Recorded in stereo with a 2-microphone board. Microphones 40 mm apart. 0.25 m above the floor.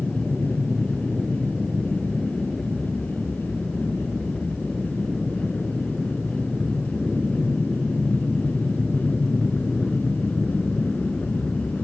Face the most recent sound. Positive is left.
turn(degrees=25)  # may be behind; listen again after turning